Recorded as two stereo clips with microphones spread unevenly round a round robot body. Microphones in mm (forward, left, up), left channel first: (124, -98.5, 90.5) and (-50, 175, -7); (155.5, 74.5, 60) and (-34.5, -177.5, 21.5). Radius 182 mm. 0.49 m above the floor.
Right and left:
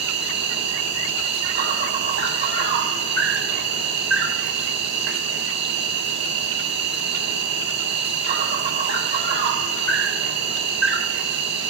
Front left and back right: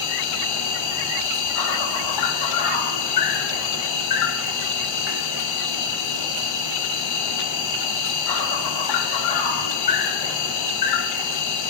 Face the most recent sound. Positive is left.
turn(degrees=70)